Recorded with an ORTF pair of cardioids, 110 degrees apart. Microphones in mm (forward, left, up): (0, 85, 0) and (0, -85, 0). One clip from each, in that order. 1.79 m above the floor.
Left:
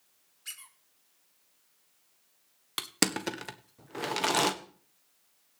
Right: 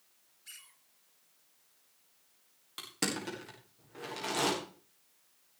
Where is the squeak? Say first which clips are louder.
Left 7 dB; 70° left, 5 m.